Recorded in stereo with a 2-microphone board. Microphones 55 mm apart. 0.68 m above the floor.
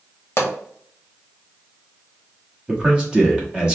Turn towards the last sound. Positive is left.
turn(degrees=-15)  # may be behind; listen again after turning